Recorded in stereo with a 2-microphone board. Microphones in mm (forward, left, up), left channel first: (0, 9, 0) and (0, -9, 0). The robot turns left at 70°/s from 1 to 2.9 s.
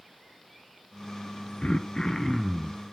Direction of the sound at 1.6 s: 60° left.